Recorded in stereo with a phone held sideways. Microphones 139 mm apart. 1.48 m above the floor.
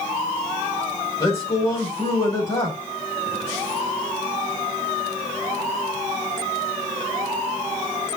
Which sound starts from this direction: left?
A man speaking, at 1.2 s.